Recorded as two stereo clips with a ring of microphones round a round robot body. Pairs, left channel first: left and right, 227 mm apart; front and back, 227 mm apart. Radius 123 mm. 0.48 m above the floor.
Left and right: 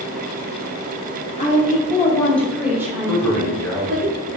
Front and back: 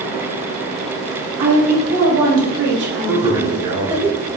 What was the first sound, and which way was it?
A woman speaking, 150° left.